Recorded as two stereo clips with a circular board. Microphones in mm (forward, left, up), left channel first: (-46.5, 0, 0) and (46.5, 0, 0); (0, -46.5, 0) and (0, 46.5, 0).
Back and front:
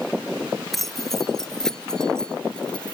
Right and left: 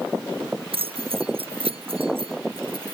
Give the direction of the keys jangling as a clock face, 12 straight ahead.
9 o'clock.